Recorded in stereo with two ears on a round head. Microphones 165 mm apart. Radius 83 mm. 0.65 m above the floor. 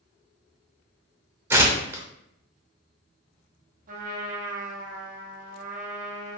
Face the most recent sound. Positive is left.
turn(degrees=-45)  # may be behind; listen again after turning